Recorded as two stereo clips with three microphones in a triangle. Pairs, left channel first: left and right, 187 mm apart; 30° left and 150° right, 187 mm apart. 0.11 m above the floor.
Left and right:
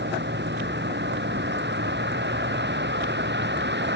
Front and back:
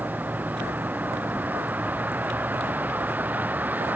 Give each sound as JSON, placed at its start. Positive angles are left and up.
{"t": 0.0, "sound": "a vehicle", "azimuth_deg": -70}